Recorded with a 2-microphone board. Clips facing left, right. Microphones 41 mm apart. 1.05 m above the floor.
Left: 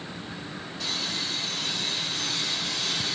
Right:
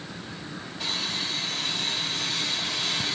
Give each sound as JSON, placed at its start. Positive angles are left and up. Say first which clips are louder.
{"t": 0.8, "sound": "sawing", "louder": "right 1 dB", "side_deg": -25, "distance_m": 5.5}